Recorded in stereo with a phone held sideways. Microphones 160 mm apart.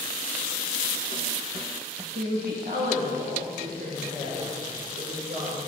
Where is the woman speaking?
80° right, 1.5 m; by 5.6 s 75° right (ahead or behind), 4 m.